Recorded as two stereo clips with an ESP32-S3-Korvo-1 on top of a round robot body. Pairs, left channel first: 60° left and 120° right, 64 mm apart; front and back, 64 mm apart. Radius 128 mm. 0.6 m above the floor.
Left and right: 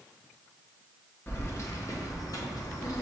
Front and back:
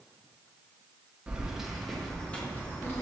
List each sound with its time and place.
1.3 s keys jangling: 110° left, 1.0 m; by 3.0 s 45° left, 1.0 m